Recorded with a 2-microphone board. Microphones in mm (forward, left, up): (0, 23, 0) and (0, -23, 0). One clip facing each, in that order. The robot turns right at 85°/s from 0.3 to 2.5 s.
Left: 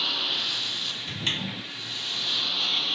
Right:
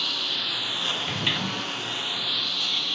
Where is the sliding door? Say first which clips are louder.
Right 4 dB; 30° right; by 1.6 s 15° left.